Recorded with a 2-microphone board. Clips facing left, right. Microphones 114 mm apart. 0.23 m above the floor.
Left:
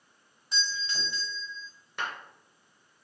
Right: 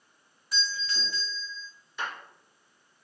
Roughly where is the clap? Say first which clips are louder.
Even; left.